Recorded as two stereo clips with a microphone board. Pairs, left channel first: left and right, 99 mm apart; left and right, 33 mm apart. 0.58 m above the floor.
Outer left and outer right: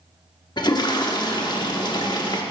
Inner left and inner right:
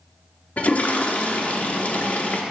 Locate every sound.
0.6 s a toilet flushing: 45° left (ahead or behind), 0.9 m